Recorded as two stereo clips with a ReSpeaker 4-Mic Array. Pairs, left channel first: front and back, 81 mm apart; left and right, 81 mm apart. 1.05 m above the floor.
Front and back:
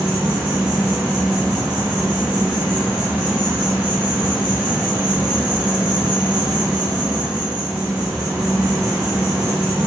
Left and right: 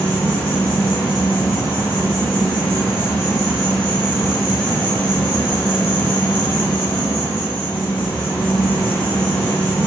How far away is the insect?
About 0.9 m.